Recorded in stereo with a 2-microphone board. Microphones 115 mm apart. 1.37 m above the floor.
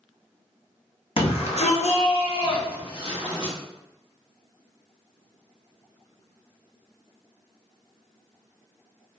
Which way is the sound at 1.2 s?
55° left (ahead or behind).